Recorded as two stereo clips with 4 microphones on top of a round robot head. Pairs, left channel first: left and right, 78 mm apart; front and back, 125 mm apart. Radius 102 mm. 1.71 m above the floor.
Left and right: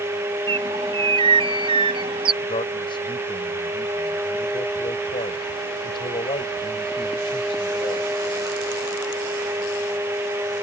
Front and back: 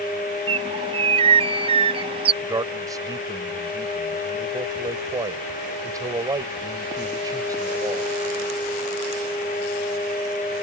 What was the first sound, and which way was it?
A bird, 125° right.